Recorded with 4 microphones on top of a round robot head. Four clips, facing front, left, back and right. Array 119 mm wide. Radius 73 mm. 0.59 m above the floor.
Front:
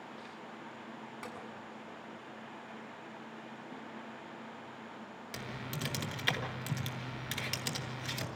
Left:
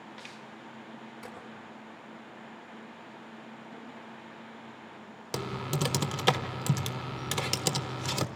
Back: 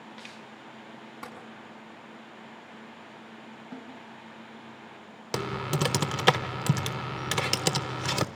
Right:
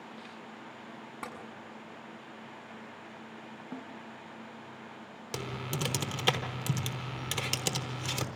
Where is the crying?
No crying in this recording.